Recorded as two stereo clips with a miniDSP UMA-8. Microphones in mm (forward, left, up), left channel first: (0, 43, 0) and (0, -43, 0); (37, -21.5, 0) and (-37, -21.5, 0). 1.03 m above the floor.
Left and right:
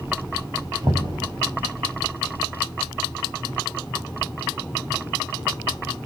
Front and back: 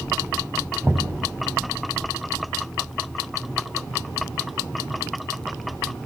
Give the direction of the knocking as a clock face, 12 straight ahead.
4 o'clock.